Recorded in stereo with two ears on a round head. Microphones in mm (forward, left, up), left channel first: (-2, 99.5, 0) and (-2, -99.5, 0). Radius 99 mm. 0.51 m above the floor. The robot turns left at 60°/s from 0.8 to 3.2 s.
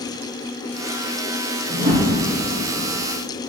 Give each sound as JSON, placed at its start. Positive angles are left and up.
{"t": 1.7, "sound": "a whoosh", "side_deg": -50, "distance_m": 5.0}